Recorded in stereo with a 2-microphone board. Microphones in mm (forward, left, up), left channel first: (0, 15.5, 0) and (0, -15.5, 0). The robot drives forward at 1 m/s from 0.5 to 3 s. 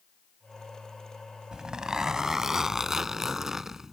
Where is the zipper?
25° right (ahead or behind); by 3.9 s 15° right (ahead or behind).